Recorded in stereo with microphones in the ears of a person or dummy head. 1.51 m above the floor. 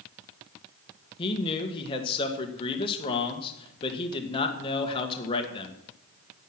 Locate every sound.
1.2 s a man speaking: 30° left (ahead or behind), 1.7 m